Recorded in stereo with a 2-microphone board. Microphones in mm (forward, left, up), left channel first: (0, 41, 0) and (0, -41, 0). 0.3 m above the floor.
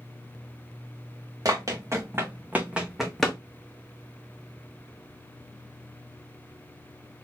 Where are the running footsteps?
45° right (ahead or behind), 1.8 m; by 3.4 s 10° left (ahead or behind), 1.2 m.